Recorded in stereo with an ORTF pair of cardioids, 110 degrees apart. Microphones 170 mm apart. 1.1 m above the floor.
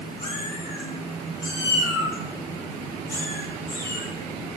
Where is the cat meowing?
25° left, 6 m; by 4.1 s 15° left, 9 m.